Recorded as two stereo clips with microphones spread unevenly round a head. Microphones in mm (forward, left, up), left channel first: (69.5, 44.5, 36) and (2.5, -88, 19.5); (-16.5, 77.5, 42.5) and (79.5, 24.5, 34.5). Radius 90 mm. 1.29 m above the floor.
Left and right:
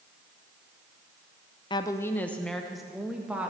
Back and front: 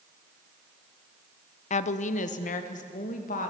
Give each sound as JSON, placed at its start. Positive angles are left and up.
{"t": 1.7, "sound": "a woman speaking", "azimuth_deg": 130, "distance_m": 0.6}